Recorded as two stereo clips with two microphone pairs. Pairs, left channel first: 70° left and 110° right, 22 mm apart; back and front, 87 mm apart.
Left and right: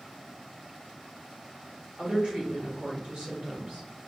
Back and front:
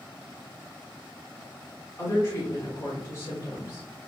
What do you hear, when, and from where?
2.0 s a woman speaking: 125° right, 2 m